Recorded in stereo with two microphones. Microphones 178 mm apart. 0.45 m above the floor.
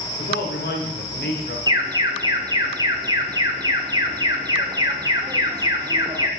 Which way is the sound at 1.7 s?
20° right (ahead or behind).